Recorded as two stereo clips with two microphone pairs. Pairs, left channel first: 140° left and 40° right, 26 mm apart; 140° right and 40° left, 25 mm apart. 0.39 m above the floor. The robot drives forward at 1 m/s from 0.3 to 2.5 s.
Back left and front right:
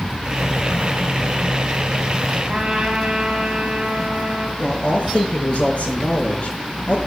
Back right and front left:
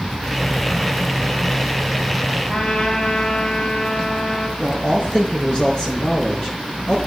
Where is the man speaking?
170° left, 4.5 m.